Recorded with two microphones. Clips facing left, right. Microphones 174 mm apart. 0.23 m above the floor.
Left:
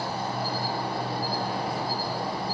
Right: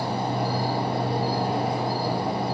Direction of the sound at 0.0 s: 60° right (ahead or behind).